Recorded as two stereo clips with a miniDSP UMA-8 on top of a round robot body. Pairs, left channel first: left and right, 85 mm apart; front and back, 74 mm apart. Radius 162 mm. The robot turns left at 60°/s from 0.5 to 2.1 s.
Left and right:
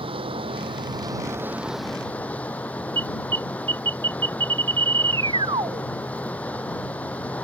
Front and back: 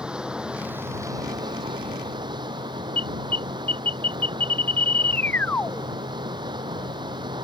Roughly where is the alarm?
Ahead right.